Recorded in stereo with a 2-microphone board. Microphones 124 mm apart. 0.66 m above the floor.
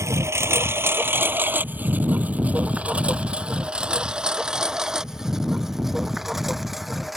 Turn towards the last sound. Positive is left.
turn(degrees=0)  # may be behind; listen again after turning